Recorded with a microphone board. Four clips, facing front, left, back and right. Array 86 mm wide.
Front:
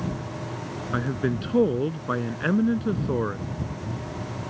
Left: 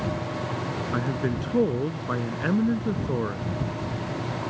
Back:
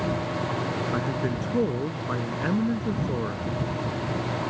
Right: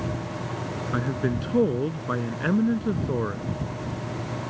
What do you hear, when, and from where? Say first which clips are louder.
0.9 s a man speaking: right 2 dB, front 1 dB; 10° right